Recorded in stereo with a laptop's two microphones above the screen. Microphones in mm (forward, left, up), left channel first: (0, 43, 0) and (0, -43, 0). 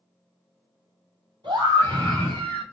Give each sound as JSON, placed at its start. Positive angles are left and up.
{"t": 1.4, "sound": "a scream", "side_deg": -60, "distance_m": 4.5}